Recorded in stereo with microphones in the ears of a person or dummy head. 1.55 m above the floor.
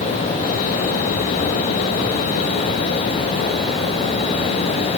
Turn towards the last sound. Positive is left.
No sound to turn to.